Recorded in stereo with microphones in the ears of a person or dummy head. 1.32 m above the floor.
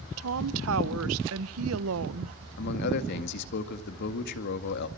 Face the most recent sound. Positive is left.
turn(degrees=60)  # may be behind; listen again after turning